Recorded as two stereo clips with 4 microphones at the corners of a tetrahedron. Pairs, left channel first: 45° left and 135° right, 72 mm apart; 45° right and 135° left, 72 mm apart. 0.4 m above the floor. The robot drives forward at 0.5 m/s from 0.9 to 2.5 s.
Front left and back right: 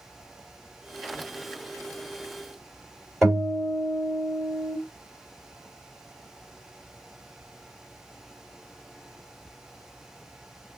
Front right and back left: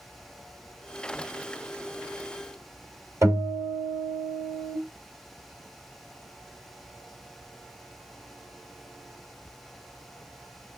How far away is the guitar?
About 2.0 m.